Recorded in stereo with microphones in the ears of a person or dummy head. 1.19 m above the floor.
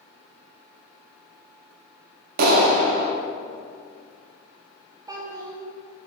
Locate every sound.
2.4 s a clap: 60° right (ahead or behind), 1.2 m
5.1 s a child speaking: 25° right (ahead or behind), 1.7 m